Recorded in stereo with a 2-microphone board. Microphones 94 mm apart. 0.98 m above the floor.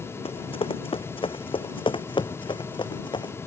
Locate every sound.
0.2 s running footsteps: 75° left (ahead or behind); by 3.4 s 50° left (ahead or behind)